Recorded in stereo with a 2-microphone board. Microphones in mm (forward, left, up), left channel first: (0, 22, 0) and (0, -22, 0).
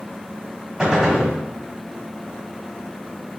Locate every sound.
0.8 s a gunshot: 20° right (ahead or behind), 1.3 m